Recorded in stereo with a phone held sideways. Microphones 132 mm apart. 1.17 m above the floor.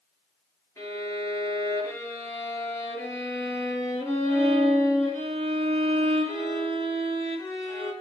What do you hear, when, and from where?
0.8 s a violin: 25° left (ahead or behind), 4 m